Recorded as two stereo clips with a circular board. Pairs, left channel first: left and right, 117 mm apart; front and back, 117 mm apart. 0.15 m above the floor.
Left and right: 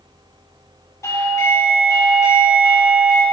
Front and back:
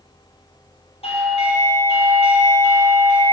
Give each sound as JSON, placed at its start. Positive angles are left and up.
{"t": 1.0, "sound": "a doorbell", "azimuth_deg": 25, "distance_m": 5.0}